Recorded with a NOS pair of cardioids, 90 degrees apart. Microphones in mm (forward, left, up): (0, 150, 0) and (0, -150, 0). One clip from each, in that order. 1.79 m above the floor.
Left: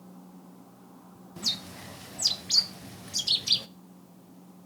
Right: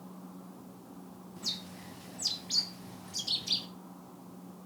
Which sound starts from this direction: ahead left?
A bird, at 1.4 s.